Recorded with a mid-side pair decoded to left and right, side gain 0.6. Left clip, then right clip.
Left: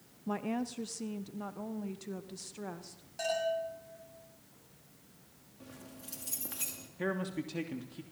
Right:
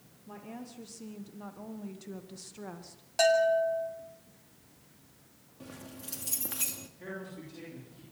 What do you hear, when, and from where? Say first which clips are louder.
0.3 s a woman speaking: left 9 dB; 55° left, 1.0 m; by 3.0 s 5° left, 2.5 m
3.2 s a bell: right 9 dB; 60° right, 7.5 m
5.6 s keys jangling: right 4 dB; 25° right, 2.5 m
7.0 s a man speaking: left 9 dB; 60° left, 3 m